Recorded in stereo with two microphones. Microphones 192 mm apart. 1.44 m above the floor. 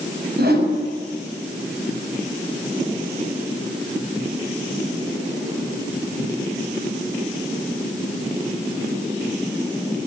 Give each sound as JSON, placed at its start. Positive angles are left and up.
{"t": 0.4, "sound": "a whoosh", "side_deg": -60, "distance_m": 6.0}